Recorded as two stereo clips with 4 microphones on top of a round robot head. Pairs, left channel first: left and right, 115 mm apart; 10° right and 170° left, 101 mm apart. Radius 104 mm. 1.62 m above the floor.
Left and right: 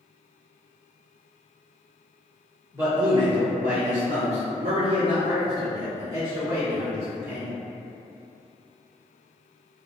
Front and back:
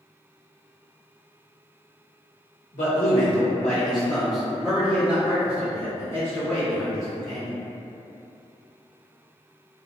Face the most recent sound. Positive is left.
turn(degrees=-160)